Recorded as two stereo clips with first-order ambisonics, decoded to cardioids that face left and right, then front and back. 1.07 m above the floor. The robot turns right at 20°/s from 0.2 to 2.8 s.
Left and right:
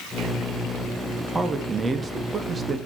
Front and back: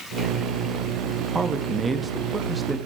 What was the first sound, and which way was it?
A man speaking, 140° right.